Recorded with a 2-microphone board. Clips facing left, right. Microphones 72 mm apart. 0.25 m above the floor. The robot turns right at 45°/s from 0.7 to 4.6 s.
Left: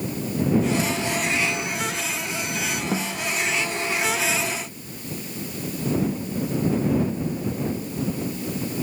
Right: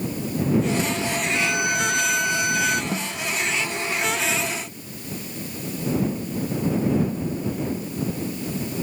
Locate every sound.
1.3 s a violin: 120° right; by 2.8 s 55° right
2.9 s a snare drum: 20° left (ahead or behind); by 3.2 s 35° left (ahead or behind)